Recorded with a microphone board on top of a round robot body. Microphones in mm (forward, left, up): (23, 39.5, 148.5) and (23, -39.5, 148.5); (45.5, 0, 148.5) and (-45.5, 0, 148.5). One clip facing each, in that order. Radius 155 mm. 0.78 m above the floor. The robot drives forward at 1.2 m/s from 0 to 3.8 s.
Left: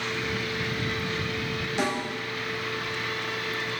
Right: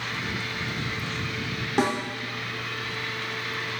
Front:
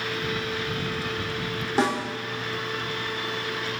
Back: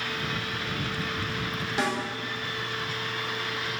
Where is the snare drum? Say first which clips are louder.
Right 4 dB, front 5 dB; 55° right, 4 m.